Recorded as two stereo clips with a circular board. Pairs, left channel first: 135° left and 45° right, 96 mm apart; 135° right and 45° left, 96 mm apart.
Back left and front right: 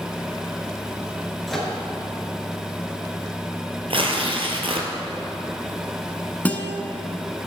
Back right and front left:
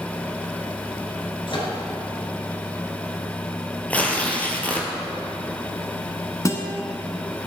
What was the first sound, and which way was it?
A microwave, 135° right.